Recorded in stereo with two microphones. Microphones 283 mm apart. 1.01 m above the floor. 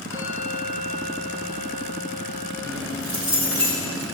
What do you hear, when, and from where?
0.1 s a bell: 75° right (ahead or behind), 6.5 m
2.6 s keys jangling: 50° right (ahead or behind), 3.5 m